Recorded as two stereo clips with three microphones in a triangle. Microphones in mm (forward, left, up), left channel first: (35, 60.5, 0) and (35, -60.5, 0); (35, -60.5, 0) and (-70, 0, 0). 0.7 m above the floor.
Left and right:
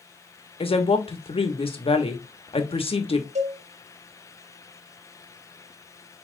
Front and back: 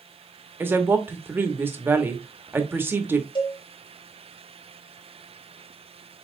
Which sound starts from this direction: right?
A cowbell, at 3.4 s.